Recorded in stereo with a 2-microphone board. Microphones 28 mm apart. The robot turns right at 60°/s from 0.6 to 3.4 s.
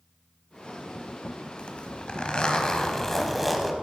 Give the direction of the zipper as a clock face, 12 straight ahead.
10 o'clock.